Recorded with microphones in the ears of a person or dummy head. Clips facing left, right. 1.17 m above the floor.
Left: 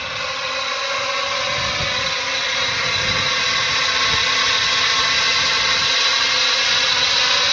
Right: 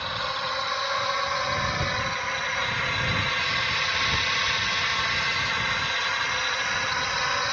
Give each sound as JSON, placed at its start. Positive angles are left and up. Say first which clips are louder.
{"t": 0.0, "sound": "a drone", "louder": "left 4 dB", "side_deg": 45}